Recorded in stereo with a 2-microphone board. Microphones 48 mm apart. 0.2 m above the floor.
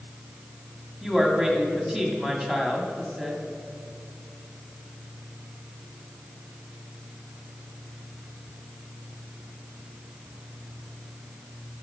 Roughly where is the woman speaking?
Centre.